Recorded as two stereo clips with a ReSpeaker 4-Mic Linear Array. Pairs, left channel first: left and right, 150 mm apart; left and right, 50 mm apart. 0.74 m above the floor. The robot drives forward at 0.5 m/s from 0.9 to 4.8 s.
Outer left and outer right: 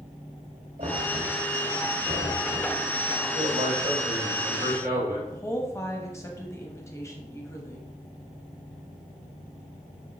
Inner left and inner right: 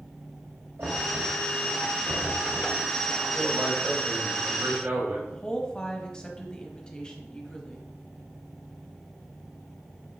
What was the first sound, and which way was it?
Knocking, 75° right (ahead or behind).